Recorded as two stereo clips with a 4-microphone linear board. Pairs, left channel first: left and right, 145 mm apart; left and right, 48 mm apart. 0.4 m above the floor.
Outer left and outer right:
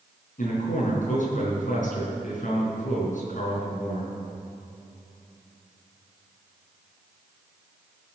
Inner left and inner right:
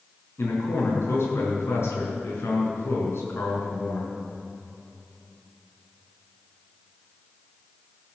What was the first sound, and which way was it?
A man speaking, 65° left (ahead or behind).